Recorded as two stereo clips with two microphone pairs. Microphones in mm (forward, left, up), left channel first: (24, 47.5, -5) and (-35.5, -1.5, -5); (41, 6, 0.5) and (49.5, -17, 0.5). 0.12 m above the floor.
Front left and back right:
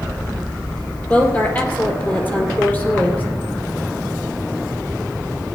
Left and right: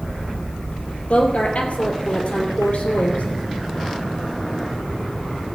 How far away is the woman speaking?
About 3 m.